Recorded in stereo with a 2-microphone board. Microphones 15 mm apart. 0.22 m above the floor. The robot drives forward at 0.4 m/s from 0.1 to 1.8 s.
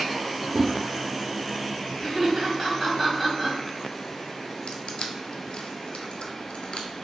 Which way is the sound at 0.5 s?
15° right (ahead or behind).